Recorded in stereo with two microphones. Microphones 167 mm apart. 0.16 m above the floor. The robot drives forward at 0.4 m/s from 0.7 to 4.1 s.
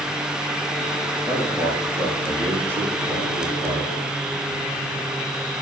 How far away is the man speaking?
About 6 m.